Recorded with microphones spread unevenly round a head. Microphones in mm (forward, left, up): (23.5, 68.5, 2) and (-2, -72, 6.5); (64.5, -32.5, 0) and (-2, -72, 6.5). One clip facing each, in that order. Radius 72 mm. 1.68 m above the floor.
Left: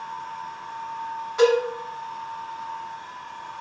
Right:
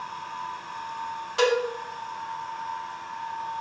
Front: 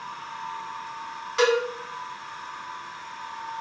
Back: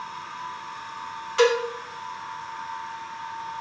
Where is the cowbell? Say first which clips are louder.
Left 5 dB, back 1 dB; 50° right, 2.5 m.